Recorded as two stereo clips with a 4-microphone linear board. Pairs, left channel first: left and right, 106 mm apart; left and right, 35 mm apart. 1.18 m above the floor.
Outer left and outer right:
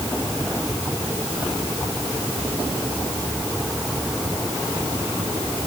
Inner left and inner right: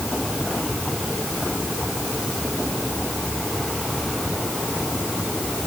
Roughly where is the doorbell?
I don't hear a doorbell.